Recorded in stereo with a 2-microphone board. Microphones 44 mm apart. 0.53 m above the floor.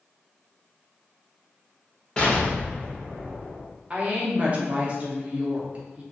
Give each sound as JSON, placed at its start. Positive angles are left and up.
{"t": 2.2, "sound": "an explosion", "side_deg": 20, "distance_m": 0.8}
{"t": 3.9, "sound": "a woman speaking", "side_deg": -30, "distance_m": 0.7}